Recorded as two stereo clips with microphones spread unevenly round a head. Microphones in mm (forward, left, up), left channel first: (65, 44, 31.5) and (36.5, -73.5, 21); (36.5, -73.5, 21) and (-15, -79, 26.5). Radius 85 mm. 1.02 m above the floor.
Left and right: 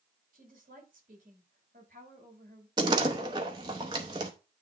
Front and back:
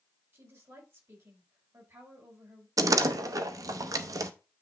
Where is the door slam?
170° right, 0.7 m.